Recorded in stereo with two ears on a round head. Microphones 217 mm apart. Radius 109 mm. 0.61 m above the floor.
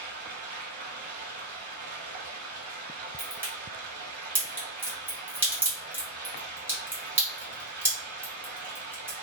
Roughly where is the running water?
Right.